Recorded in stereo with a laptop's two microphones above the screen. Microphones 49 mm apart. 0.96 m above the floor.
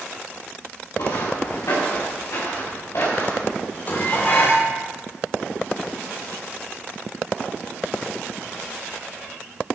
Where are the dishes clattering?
40° left (ahead or behind), 2.5 m.